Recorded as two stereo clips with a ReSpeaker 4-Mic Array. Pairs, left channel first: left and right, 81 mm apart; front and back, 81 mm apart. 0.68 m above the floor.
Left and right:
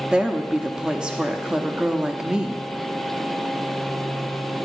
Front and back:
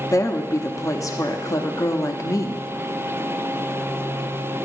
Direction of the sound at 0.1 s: 15° right.